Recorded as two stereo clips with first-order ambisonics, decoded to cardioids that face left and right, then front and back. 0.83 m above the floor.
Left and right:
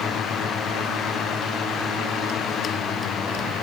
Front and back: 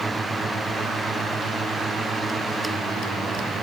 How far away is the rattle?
I don't hear a rattle.